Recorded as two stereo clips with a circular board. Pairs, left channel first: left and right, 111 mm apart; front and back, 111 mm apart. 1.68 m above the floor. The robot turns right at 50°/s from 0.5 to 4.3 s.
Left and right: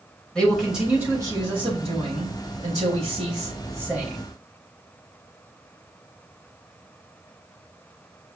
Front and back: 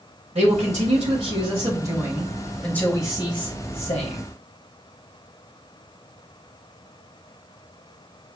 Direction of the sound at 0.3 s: 175° left.